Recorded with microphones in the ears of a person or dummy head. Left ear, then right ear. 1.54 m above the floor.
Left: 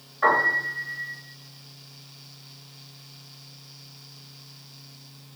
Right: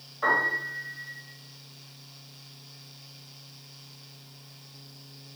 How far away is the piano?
About 1.1 m.